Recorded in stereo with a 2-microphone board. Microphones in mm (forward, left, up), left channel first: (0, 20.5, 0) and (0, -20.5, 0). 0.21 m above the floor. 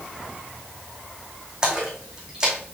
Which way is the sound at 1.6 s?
20° right (ahead or behind).